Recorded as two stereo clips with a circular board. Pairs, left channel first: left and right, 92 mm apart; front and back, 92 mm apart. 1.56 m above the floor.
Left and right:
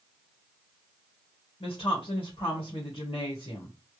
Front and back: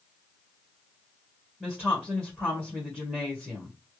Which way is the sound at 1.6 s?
90° left.